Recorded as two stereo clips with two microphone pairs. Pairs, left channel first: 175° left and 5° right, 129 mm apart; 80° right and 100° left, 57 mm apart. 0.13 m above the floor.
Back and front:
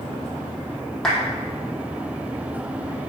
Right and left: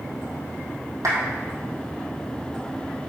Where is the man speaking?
I don't hear a man speaking.